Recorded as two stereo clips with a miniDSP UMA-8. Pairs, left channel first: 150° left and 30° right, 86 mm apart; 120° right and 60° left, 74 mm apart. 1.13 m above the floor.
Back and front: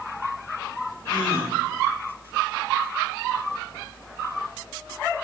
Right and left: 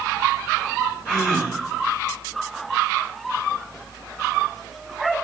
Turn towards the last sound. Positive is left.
turn(degrees=-170)